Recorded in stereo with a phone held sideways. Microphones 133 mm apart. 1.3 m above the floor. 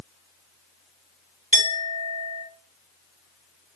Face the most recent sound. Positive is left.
turn(degrees=-80)